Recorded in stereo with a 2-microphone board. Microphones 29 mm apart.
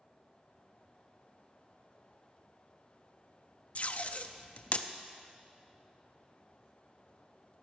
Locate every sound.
3.8 s tape being pulled: 50° left (ahead or behind), 0.7 m